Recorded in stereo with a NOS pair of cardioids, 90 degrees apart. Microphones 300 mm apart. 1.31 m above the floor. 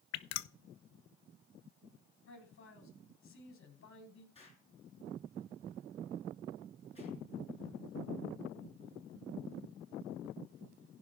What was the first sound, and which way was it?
Dripping, 65° left.